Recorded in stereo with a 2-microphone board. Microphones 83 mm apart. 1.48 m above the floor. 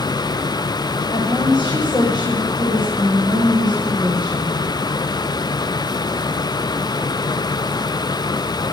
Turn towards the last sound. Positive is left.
turn(degrees=65)  # may be behind; listen again after turning